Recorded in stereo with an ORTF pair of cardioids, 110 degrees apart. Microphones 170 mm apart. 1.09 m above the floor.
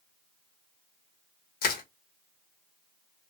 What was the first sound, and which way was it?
Crushing, 60° left.